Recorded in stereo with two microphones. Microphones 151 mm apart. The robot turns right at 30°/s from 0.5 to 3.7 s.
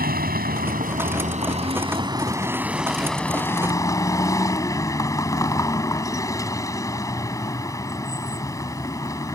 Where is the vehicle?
75° right; by 9.4 s 20° left.